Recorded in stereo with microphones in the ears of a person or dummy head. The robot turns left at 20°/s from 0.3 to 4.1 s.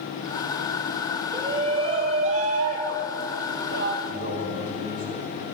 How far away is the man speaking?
About 4.5 m.